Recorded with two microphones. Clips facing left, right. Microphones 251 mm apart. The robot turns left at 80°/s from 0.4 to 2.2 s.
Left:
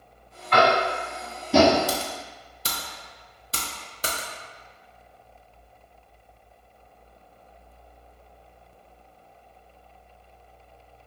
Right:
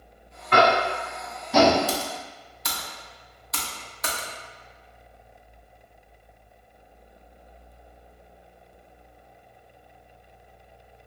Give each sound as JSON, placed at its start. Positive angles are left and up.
{"t": 0.5, "sound": "tapping", "side_deg": -50, "distance_m": 0.8}
{"t": 1.9, "sound": "typing on a keyboard", "side_deg": 15, "distance_m": 0.5}